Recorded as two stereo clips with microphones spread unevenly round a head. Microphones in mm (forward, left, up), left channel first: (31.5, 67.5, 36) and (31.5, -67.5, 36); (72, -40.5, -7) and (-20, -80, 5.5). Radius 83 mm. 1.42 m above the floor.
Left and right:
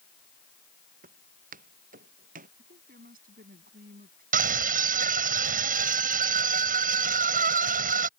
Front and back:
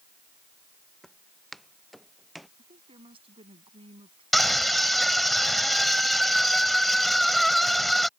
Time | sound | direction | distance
1.0 | footsteps | 65° right | ?
2.6 | a woman speaking | 125° right | ?
4.3 | a scream | 65° right | ?